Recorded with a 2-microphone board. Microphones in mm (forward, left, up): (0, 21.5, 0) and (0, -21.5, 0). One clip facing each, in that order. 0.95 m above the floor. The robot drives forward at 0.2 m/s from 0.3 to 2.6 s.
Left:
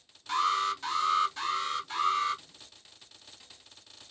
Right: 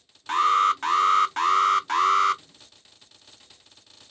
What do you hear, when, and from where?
0.3 s an alarm: 55° right (ahead or behind), 0.6 m; by 2.4 s 85° right, 0.5 m